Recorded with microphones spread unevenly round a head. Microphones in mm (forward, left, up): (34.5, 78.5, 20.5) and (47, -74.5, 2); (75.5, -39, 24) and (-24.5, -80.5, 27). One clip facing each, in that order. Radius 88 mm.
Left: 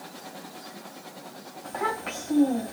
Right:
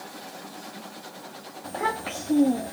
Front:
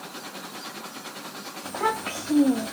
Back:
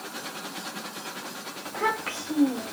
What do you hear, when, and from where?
1.6 s a child speaking: 35° right, 1.8 m